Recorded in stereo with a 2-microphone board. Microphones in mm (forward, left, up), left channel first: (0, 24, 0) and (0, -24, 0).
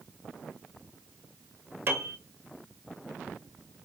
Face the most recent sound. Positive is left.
turn(degrees=-45)  # may be behind; listen again after turning